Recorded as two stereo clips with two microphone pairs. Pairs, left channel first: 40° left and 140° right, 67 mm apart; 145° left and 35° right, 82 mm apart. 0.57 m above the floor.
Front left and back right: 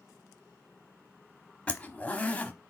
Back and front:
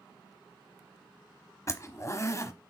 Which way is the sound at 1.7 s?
110° left.